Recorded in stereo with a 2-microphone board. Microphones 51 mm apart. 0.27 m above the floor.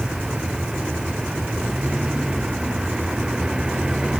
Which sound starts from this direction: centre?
A vehicle, at 0.0 s.